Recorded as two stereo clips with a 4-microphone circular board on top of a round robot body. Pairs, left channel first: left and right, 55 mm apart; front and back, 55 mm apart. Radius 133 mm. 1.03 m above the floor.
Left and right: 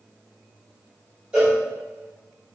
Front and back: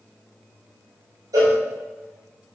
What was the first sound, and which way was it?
A cowbell, 165° right.